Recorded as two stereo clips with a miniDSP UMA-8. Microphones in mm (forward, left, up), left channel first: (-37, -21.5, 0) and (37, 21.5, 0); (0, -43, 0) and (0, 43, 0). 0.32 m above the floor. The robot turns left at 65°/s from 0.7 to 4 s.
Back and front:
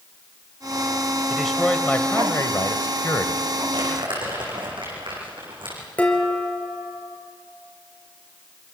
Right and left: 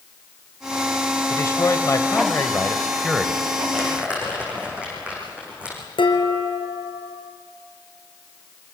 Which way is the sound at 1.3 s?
50° right.